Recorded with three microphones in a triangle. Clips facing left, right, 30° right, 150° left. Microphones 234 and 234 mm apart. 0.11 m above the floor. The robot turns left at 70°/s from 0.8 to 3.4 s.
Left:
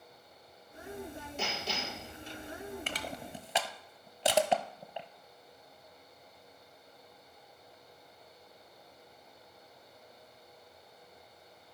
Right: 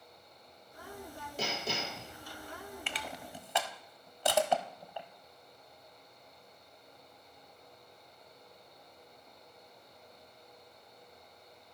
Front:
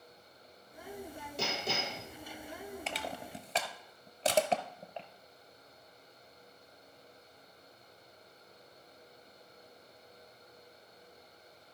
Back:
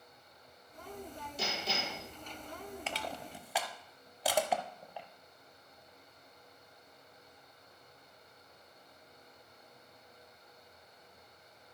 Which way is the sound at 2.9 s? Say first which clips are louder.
Left 3 dB, front 1 dB; 65° left.